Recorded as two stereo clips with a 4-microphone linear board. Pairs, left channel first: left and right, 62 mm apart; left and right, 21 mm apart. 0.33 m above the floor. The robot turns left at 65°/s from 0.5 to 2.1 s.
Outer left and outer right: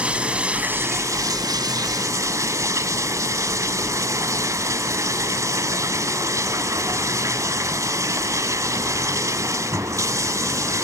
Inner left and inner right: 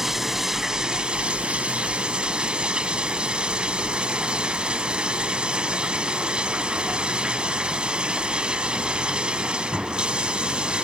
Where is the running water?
20° right, 0.9 m; by 10.8 s 125° right, 0.9 m.